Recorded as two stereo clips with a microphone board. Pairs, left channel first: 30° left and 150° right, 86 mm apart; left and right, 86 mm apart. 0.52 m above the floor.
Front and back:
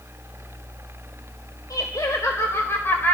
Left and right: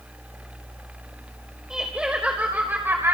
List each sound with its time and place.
1.7 s laughter: 10° right, 2.5 m; by 3.1 s 35° right, 2 m